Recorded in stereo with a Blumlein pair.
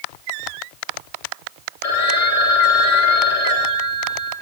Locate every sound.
1.8 s a phone ringing: 45° left, 2.5 m